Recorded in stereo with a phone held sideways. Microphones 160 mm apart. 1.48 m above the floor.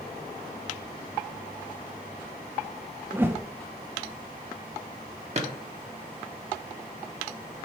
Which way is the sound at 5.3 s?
40° right (ahead or behind).